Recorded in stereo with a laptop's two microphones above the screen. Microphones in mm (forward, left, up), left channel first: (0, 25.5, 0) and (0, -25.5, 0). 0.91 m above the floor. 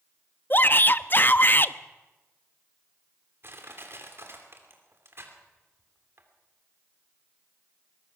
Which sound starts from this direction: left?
A shout, at 0.5 s.